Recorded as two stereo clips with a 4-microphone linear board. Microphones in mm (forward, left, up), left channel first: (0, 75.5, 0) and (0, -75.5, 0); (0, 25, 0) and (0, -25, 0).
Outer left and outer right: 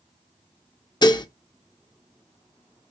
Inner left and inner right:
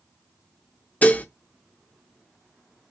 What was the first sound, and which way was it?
Dishes clattering, 30° left (ahead or behind).